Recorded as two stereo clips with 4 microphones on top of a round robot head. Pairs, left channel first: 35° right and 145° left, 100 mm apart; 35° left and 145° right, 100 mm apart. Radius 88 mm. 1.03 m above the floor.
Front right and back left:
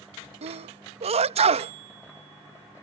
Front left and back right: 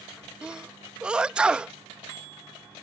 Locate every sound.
0.4 s a sneeze: 135° left